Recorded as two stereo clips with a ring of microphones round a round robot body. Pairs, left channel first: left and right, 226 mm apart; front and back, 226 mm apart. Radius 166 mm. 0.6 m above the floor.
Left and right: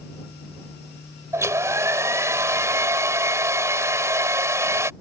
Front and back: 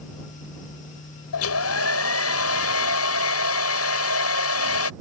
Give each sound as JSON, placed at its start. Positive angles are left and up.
{"t": 1.3, "sound": "a hair dryer", "azimuth_deg": -15}